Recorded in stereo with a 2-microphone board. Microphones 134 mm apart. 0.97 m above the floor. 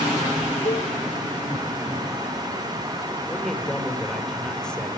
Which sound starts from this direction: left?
A cowbell, at 0.7 s.